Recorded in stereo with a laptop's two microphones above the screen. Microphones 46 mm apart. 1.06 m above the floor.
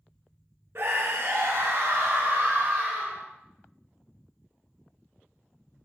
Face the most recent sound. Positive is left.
turn(degrees=-50)  # may be behind; listen again after turning